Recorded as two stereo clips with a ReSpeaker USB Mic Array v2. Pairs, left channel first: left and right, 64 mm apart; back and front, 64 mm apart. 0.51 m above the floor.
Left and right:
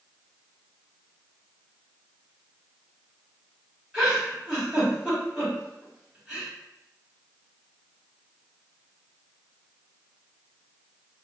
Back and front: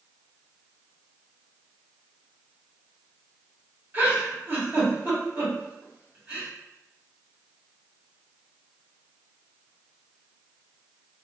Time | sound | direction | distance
3.9 | a giggle | 15° right | 1.4 m